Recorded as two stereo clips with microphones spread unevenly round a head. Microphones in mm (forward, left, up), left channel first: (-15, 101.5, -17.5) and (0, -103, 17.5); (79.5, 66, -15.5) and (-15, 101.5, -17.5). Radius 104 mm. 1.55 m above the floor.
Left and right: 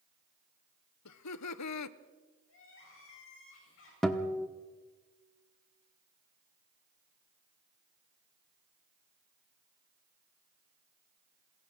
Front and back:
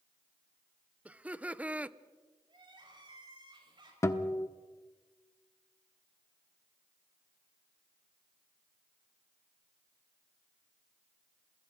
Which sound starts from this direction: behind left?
Crying, at 2.5 s.